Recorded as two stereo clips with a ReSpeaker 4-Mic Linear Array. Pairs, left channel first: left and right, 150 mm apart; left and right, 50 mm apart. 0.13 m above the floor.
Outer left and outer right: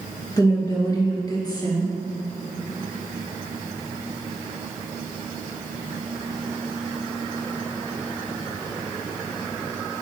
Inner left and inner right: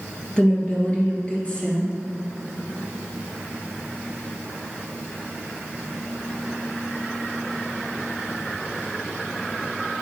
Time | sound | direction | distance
0.4 | a woman speaking | 25° left (ahead or behind) | 2.5 m